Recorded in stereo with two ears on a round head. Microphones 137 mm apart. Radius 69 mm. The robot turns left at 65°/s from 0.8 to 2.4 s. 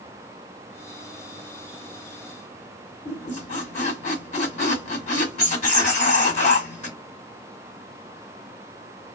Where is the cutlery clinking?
I don't hear cutlery clinking.